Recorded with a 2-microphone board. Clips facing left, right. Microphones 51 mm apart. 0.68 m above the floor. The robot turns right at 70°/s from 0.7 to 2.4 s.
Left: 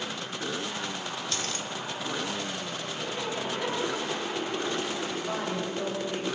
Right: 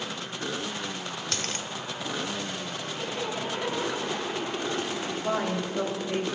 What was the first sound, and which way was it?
A dropped coin, 60° right (ahead or behind).